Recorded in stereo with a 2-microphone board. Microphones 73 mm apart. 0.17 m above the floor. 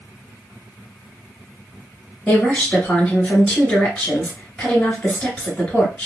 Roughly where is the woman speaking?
Centre.